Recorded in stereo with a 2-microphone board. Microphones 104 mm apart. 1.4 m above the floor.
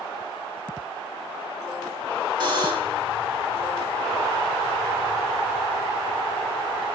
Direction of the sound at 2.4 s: 50° right (ahead or behind).